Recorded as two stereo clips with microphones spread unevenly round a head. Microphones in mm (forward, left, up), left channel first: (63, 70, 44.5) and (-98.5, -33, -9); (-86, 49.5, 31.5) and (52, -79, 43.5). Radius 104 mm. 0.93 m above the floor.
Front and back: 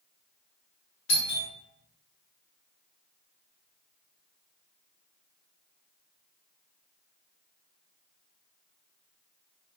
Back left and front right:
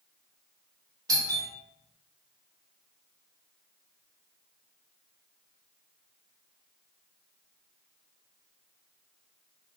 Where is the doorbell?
25° left, 0.9 m.